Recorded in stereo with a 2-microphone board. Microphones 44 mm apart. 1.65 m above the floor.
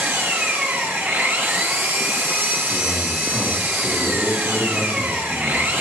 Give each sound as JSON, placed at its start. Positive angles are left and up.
{"t": 0.0, "sound": "an engine running", "side_deg": -60, "distance_m": 1.3}
{"t": 2.7, "sound": "a man speaking", "side_deg": 0, "distance_m": 2.5}